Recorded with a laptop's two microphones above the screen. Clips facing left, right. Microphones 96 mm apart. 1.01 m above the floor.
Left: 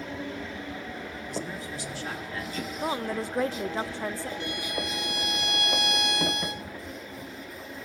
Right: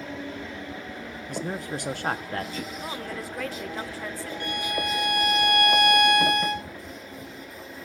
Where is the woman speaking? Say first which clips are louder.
Left 4 dB; 25° left (ahead or behind), 0.5 m.